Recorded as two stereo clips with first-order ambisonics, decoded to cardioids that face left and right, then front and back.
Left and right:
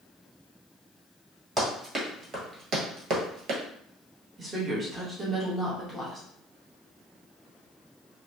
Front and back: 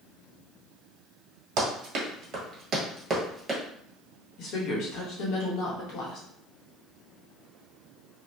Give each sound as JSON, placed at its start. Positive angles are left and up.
{"t": 1.6, "sound": "running footsteps", "azimuth_deg": -165, "distance_m": 1.3}
{"t": 4.4, "sound": "a woman speaking", "azimuth_deg": -10, "distance_m": 1.1}